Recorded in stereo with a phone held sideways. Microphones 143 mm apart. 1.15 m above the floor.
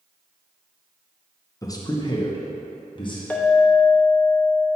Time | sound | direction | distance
1.6 | a man speaking | 25° left (ahead or behind) | 0.7 m
3.3 | a clink | 15° left (ahead or behind) | 0.8 m